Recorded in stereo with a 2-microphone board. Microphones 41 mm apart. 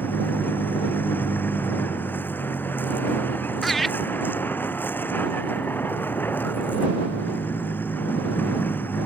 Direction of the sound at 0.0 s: 55° left (ahead or behind).